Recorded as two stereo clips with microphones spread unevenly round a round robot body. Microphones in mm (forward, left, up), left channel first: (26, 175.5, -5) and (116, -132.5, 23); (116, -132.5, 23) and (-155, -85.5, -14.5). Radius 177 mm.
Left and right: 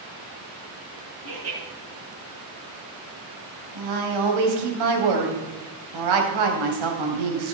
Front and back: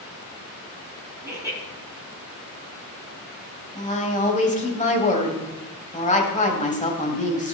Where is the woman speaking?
75° right, 3.5 m.